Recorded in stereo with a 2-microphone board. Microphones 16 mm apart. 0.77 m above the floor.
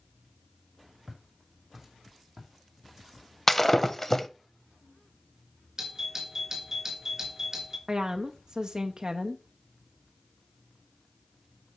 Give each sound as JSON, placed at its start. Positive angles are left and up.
{"t": 1.1, "sound": "footsteps", "side_deg": -20, "distance_m": 2.5}
{"t": 3.5, "sound": "breaking glass", "side_deg": 10, "distance_m": 0.6}
{"t": 5.8, "sound": "a doorbell", "side_deg": -30, "distance_m": 2.5}
{"t": 7.9, "sound": "a woman speaking", "side_deg": -35, "distance_m": 0.7}